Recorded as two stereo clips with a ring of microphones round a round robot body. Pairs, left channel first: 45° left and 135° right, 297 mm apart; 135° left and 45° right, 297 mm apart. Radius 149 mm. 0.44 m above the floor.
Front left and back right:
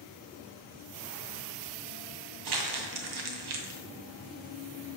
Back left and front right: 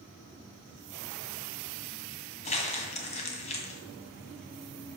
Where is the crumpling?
155° right, 2 m.